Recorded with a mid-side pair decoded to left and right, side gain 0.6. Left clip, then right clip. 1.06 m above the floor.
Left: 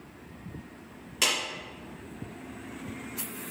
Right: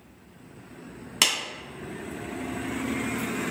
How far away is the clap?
About 1.7 m.